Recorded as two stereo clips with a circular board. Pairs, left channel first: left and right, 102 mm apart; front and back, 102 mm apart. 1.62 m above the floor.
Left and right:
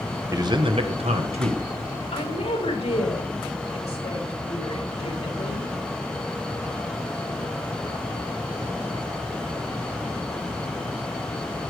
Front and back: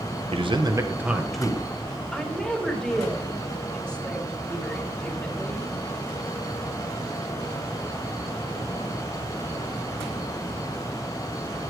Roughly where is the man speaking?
Behind right.